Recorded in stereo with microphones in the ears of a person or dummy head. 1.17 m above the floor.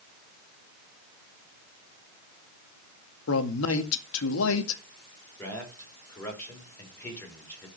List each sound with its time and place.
3.3 s a man speaking: 75° left (ahead or behind), 2.0 m
5.4 s a man speaking: 10° left (ahead or behind), 5 m